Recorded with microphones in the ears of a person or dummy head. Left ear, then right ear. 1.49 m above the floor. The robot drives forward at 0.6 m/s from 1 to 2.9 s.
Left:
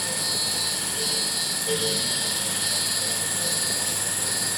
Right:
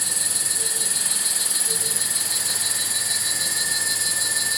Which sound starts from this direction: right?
An insect, at 0.0 s.